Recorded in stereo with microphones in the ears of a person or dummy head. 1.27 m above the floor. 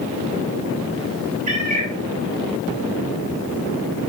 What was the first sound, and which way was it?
A cat meowing, 40° right (ahead or behind).